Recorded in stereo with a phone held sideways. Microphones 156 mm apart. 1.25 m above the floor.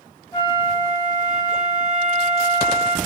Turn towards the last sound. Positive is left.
turn(degrees=20)  # may be behind; listen again after turning